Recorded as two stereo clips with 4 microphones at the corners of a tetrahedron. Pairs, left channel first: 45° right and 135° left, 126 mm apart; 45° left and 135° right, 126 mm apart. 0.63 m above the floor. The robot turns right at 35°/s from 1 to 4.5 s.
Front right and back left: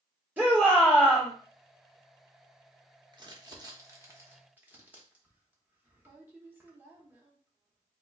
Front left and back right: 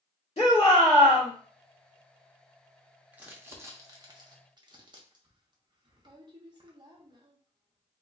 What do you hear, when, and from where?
0.4 s a shout: 65° left, 1.9 m; by 1.3 s 75° left, 1.9 m
3.1 s crumpling: 155° left, 0.8 m; by 8.0 s 160° right, 0.8 m